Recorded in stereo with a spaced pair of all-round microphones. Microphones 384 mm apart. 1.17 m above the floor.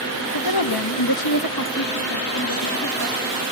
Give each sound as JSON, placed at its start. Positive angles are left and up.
{"t": 0.3, "sound": "a woman speaking", "side_deg": 85, "distance_m": 1.4}